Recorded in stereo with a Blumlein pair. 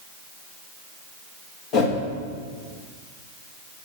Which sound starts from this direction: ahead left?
A whoosh, at 1.7 s.